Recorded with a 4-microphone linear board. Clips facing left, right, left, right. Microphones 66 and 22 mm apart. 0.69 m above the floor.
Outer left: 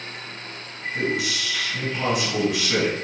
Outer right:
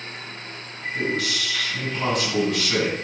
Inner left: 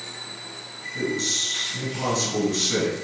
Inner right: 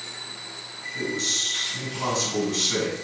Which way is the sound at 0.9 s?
Centre (ahead or behind).